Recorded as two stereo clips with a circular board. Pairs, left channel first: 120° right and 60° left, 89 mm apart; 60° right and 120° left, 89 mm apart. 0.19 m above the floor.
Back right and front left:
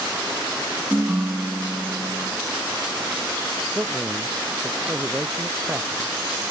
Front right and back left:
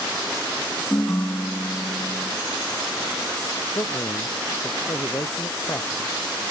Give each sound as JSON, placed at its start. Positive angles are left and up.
{"t": 0.9, "sound": "a ringtone", "azimuth_deg": 0}
{"t": 3.8, "sound": "a man speaking", "azimuth_deg": -5}